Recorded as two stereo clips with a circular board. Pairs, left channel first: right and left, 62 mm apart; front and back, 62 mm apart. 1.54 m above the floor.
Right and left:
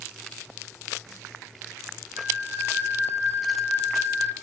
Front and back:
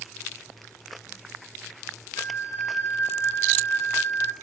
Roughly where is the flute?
Ahead left.